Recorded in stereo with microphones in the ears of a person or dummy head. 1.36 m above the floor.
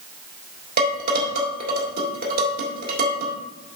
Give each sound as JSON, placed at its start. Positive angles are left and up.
{"t": 0.8, "sound": "dishes clattering", "side_deg": -45, "distance_m": 3.0}